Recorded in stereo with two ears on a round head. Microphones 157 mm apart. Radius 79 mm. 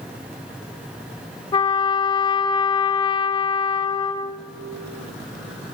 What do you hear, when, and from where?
1.5 s a trumpet: 25° left (ahead or behind), 0.9 m